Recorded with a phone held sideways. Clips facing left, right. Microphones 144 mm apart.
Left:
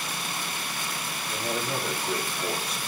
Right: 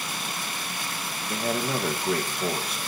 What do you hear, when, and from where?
1.3 s a man speaking: 60° right (ahead or behind), 1.8 m